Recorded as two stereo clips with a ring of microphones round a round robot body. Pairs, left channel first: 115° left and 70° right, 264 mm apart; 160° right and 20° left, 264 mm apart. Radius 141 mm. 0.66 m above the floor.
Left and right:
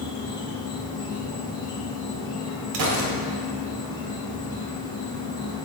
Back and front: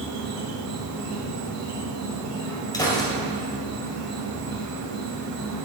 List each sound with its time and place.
0.0 s an insect: 40° left, 2 m
2.7 s a gunshot: 80° right, 1.7 m